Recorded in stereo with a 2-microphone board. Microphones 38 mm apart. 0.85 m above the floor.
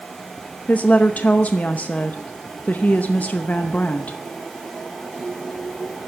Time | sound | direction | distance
0.7 | a woman speaking | 40° left (ahead or behind) | 0.7 m